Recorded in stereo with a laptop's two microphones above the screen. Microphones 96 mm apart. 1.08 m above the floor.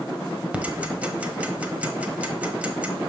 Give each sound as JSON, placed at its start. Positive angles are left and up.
{"t": 0.5, "sound": "ticking", "side_deg": -15, "distance_m": 1.0}